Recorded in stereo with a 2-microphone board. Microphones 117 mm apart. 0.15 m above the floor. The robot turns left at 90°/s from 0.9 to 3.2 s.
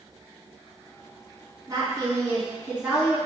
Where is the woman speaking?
60° right, 1.8 m; by 3.2 s 170° left, 1.8 m.